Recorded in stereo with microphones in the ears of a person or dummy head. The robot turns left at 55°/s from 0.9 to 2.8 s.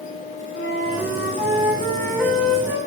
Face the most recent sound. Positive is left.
turn(degrees=-25)